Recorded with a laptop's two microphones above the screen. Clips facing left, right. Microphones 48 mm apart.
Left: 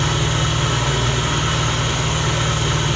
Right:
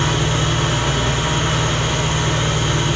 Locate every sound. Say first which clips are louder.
0.0 s an engine running: right 1 dB; 55° right (ahead or behind), 0.8 m